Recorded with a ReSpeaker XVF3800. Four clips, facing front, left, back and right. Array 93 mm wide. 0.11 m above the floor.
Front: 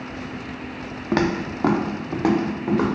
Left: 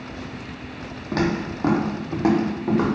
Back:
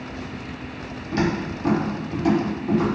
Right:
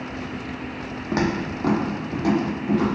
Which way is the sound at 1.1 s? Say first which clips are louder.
Even, front 2 dB; 15° right.